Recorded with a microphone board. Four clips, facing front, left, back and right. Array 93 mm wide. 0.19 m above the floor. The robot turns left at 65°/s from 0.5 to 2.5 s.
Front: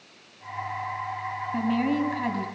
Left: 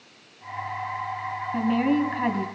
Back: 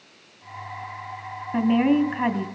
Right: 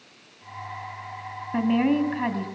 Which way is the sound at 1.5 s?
140° right.